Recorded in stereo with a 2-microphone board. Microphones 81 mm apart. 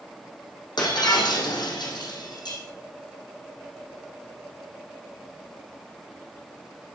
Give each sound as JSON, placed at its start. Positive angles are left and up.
{"t": 0.8, "sound": "breaking glass", "side_deg": 65, "distance_m": 4.0}